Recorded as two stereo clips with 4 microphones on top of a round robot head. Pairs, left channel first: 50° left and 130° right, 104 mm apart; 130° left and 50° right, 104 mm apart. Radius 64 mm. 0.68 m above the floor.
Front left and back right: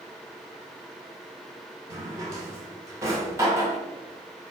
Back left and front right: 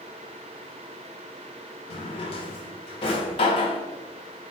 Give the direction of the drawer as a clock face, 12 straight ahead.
6 o'clock.